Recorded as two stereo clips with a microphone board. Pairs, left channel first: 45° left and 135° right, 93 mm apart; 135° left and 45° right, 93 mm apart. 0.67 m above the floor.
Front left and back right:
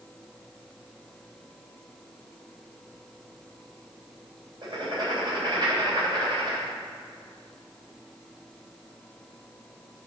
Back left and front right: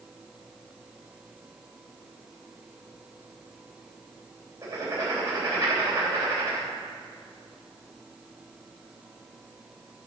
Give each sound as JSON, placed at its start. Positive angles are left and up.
{"t": 4.6, "sound": "writing", "azimuth_deg": -105, "distance_m": 3.0}